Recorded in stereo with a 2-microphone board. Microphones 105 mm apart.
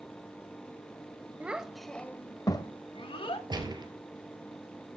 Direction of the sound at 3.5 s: 40° right (ahead or behind).